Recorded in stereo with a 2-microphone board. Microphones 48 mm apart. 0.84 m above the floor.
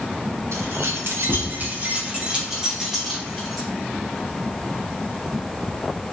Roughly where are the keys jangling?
Right.